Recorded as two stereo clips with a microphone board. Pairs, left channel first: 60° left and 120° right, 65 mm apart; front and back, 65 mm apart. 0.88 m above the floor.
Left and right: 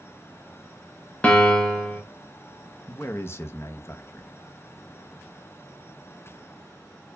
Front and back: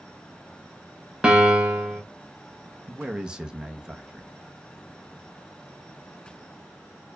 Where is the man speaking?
105° left, 0.6 m.